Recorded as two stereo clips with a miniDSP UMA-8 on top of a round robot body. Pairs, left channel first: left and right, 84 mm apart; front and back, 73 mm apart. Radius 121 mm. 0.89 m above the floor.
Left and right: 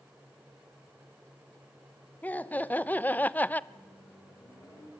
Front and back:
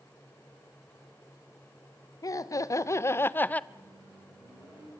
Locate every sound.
2.2 s laughter: 20° left, 1.5 m; by 3.6 s 45° left, 0.9 m
3.7 s a microwave: 140° left, 9.5 m